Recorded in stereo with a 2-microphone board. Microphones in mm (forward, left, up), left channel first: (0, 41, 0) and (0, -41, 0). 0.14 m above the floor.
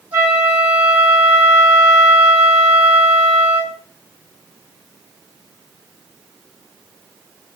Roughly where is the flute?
Centre.